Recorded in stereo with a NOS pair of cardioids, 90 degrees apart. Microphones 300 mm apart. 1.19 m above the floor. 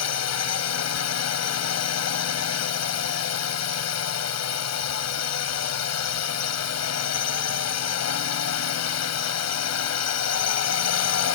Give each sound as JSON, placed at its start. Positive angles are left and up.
{"t": 0.0, "sound": "a drone", "azimuth_deg": 60}